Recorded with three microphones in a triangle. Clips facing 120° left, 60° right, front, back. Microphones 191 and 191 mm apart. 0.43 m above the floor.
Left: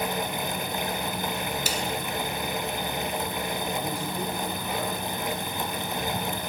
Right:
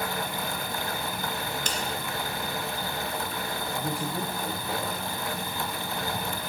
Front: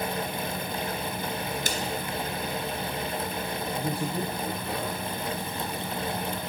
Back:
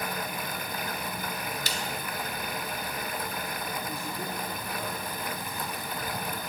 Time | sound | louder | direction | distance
1.7 | a snare drum | left 2 dB, front 5 dB | 35° left | 2.5 m
3.8 | a man speaking | even, front 6 dB | 10° left | 9 m